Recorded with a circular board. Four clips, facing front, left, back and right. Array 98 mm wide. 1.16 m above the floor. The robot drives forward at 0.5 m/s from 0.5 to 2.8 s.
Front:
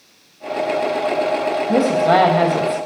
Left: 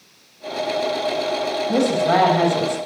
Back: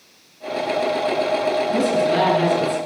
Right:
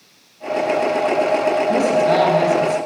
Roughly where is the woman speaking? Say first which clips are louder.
Even, front 7 dB; ahead.